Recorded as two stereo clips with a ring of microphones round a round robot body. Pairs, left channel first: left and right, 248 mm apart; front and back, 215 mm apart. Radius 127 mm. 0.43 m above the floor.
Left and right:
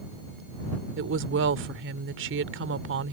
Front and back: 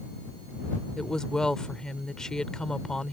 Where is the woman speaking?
85° right.